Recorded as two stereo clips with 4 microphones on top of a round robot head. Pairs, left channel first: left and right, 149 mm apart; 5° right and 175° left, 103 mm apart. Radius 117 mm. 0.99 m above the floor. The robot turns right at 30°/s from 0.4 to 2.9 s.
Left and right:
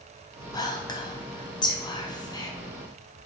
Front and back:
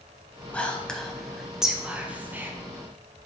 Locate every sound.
0.5 s whispering: 65° left, 0.7 m; by 2.5 s 125° left, 0.7 m